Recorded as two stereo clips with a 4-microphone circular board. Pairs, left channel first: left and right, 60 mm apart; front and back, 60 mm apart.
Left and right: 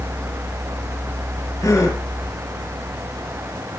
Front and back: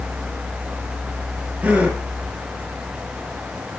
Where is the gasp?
115° left, 4.5 m.